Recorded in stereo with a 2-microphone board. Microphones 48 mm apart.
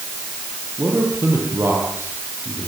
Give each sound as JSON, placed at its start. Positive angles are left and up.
{"t": 0.8, "sound": "a man speaking", "side_deg": -55, "distance_m": 8.5}